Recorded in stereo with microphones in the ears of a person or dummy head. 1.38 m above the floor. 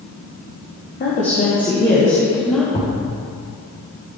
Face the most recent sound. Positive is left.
turn(degrees=25)  # may be behind; listen again after turning